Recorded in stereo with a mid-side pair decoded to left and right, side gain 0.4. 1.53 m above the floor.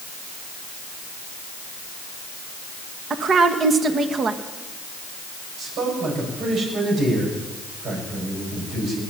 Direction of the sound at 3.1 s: 55° right.